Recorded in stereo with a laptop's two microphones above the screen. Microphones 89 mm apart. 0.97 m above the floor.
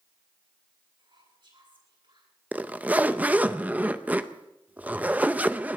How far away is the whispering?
About 8.5 m.